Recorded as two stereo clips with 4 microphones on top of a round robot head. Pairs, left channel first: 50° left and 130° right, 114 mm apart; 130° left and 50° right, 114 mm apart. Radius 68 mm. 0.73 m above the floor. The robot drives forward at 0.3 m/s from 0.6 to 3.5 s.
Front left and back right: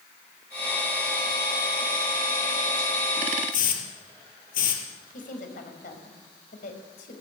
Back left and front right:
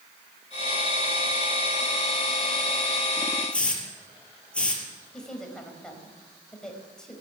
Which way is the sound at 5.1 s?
45° left.